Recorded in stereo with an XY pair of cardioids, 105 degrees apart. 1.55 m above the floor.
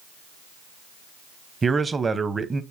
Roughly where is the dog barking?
No dog barking in this recording.